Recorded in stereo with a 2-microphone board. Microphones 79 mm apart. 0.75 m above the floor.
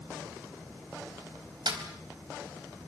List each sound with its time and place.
1.7 s a snare drum: 60° right (ahead or behind), 4 m